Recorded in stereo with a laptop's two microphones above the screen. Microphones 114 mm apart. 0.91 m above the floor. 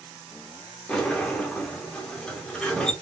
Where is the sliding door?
5° left (ahead or behind), 1.1 m.